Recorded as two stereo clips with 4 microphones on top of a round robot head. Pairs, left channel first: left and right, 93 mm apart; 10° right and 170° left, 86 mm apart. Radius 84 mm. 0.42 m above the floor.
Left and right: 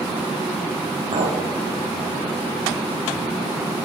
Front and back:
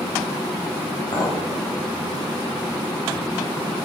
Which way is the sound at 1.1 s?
60° right.